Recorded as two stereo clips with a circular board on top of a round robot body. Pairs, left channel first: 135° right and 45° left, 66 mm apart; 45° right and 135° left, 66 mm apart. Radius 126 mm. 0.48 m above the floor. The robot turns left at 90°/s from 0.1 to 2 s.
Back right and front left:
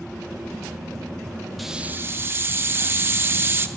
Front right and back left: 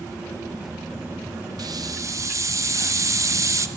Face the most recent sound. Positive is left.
turn(degrees=100)